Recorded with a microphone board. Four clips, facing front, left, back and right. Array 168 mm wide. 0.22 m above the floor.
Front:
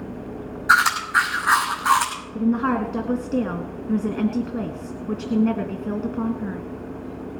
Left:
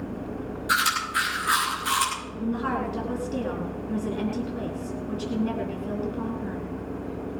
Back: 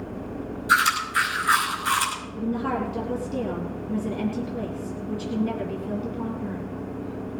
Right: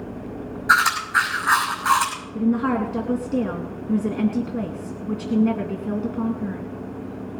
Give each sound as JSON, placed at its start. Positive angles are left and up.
{"t": 0.7, "sound": "chewing", "azimuth_deg": -35, "distance_m": 6.0}
{"t": 2.4, "sound": "a woman speaking", "azimuth_deg": -25, "distance_m": 3.0}